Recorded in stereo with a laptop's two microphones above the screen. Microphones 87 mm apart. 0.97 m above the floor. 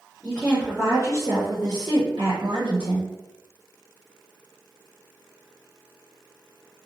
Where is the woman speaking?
10° left (ahead or behind), 0.7 m; by 3.1 s 65° right (ahead or behind), 1.3 m.